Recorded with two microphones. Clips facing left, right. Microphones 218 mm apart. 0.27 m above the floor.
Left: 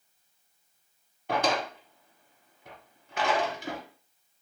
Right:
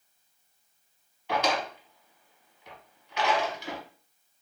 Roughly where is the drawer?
Left.